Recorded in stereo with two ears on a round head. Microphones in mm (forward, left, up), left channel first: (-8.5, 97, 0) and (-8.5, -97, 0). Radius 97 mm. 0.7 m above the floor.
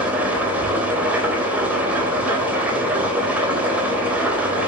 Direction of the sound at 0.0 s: 5° right (ahead or behind).